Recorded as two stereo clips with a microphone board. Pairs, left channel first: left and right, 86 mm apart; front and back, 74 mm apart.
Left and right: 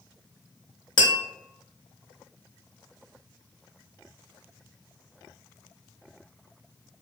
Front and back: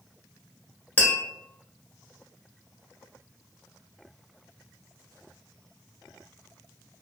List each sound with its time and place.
1.0 s tapping: 65° left, 0.6 m